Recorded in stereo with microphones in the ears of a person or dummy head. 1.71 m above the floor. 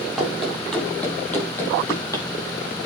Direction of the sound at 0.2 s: Centre (ahead or behind).